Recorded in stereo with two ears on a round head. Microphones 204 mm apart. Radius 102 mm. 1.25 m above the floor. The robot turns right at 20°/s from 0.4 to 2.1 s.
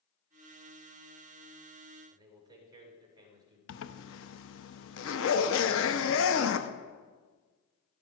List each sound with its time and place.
2.1 s a man speaking: 20° right (ahead or behind), 4.5 m
3.7 s a zipper: 60° left (ahead or behind), 0.9 m